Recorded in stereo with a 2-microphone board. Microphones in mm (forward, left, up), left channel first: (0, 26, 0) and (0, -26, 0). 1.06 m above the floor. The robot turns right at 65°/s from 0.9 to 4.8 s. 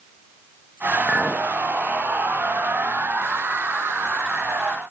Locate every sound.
1.1 s a clink: 20° right (ahead or behind), 0.6 m; by 1.5 s centre (ahead or behind), 0.6 m